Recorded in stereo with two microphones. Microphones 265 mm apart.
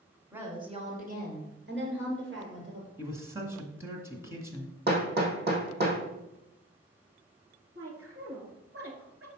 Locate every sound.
0.3 s a woman speaking: 5° right (ahead or behind), 1.4 m; by 2.9 s 50° right (ahead or behind), 4 m
3.0 s a man speaking: 10° right (ahead or behind), 1.5 m
4.9 s hammering: 40° right (ahead or behind), 1.9 m
7.8 s a woman speaking: 60° right (ahead or behind), 1.9 m